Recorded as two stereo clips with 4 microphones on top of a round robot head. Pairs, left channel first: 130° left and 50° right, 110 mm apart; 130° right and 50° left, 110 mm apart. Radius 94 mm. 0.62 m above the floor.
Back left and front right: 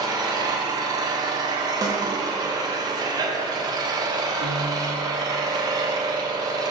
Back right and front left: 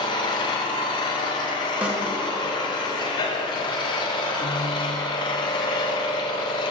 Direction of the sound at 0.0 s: 95° right.